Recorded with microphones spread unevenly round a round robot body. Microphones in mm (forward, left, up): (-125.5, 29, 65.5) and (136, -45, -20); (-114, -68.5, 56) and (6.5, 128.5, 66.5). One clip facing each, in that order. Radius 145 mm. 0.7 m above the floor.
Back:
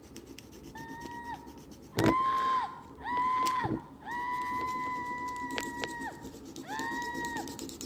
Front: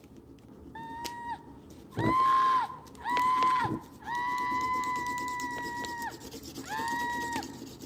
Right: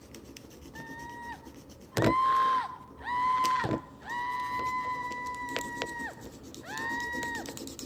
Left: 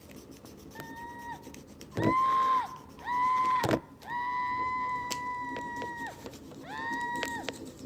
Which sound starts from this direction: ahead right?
A scream, at 0.8 s.